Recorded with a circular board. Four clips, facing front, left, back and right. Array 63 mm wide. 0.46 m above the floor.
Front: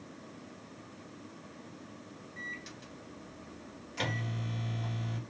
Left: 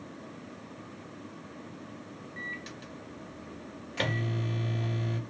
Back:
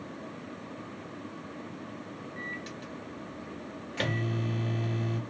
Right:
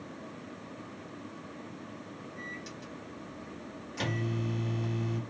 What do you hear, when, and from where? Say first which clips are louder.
2.4 s a microwave: left 5 dB, back 3 dB; 125° left, 1.3 m